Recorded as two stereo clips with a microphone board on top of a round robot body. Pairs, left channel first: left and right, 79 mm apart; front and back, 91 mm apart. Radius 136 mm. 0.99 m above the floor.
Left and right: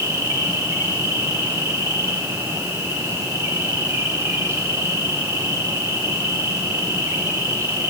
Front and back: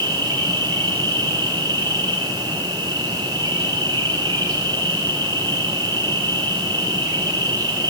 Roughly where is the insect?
Behind right.